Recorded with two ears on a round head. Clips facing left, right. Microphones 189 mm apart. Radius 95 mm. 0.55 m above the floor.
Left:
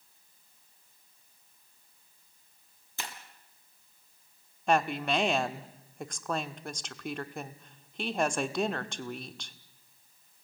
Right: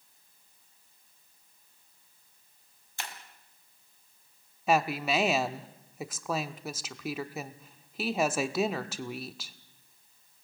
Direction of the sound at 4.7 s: 5° right (ahead or behind).